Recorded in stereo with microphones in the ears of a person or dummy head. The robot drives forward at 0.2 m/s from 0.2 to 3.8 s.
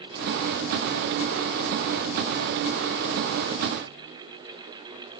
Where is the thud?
No thud in this recording.